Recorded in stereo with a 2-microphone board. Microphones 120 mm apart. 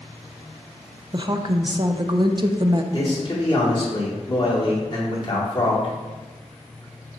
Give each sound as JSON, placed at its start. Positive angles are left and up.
{"t": 1.1, "sound": "a woman speaking", "side_deg": -40, "distance_m": 0.5}
{"t": 2.9, "sound": "a man speaking", "side_deg": 35, "distance_m": 2.0}